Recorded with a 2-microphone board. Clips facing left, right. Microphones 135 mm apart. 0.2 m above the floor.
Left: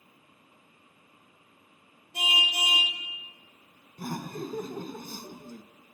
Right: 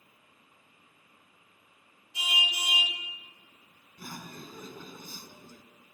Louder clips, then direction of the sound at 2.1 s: Left 4 dB; 55° left (ahead or behind).